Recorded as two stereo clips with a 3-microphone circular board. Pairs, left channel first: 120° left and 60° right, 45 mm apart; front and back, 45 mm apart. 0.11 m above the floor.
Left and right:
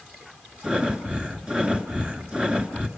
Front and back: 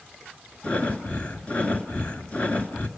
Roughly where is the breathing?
Ahead.